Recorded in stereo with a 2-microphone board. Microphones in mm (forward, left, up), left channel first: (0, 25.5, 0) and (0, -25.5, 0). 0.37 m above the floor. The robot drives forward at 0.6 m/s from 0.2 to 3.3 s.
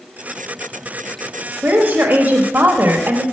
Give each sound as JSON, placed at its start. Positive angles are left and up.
{"t": 1.6, "sound": "a woman speaking", "side_deg": -40, "distance_m": 1.4}